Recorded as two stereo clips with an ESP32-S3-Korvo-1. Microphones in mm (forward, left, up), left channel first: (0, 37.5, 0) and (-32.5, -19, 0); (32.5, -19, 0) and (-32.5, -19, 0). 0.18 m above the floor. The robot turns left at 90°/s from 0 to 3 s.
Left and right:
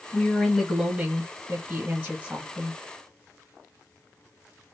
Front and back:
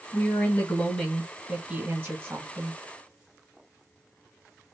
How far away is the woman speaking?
About 1.4 m.